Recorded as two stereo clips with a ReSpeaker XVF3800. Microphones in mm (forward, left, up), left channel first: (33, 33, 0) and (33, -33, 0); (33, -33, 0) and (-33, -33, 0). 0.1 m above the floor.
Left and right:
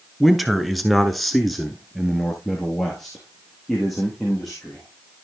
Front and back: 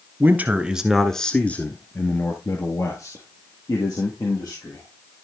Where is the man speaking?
175° right, 1.3 m; by 4.9 s 5° left, 3.5 m.